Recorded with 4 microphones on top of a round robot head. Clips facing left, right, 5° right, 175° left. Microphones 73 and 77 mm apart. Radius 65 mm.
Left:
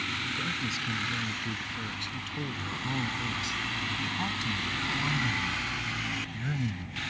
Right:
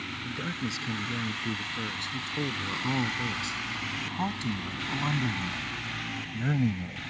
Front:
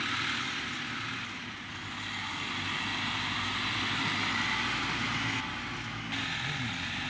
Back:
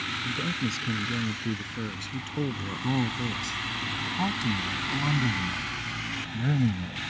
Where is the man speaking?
155° right; by 7.0 s 135° right.